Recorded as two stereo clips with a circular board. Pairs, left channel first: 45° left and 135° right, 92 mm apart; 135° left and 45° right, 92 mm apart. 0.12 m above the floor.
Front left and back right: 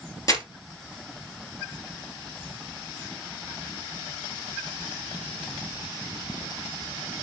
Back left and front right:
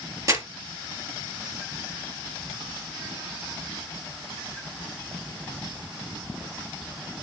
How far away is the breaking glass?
No breaking glass in this recording.